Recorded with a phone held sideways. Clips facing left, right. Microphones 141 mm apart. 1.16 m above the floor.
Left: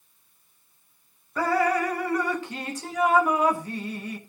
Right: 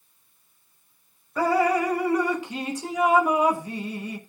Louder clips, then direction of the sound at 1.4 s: Right 2 dB; 15° right (ahead or behind).